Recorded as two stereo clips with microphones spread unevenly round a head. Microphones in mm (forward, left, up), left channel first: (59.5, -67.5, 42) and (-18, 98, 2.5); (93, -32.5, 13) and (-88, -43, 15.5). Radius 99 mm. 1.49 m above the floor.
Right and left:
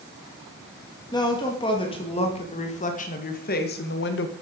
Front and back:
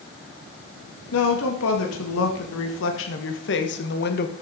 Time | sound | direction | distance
1.1 | a woman speaking | 5° left | 2.5 m